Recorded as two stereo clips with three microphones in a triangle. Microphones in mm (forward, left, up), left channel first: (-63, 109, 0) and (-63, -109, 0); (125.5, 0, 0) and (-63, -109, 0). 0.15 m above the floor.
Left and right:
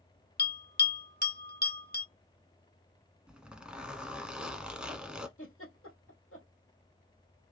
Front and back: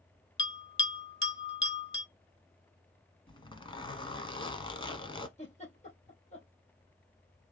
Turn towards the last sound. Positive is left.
turn(degrees=85)